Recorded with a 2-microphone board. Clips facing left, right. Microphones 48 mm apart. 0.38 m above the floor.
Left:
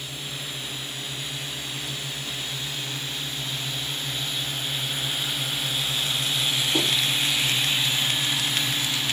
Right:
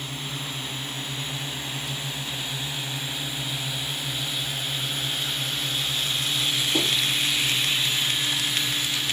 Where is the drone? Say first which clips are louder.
Right 2 dB; 35° right (ahead or behind); by 9.1 s 45° left (ahead or behind).